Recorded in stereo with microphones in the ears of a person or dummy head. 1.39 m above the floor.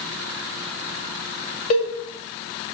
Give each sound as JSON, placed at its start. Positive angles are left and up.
{"t": 1.7, "sound": "a cowbell", "side_deg": 45, "distance_m": 2.0}